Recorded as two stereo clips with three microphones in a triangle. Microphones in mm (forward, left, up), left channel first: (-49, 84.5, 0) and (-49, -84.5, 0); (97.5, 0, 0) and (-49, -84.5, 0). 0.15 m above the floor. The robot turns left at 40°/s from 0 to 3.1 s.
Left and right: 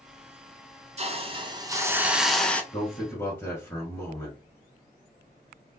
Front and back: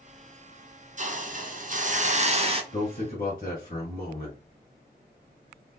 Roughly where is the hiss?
Behind right.